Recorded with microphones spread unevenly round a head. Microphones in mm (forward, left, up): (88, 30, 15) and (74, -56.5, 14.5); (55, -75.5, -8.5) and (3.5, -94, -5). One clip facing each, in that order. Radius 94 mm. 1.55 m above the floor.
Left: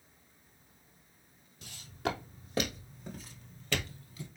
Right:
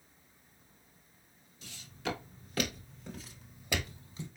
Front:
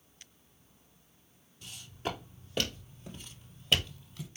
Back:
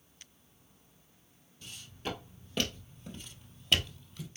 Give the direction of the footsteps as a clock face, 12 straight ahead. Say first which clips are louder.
Left 3 dB, front 3 dB; 8 o'clock.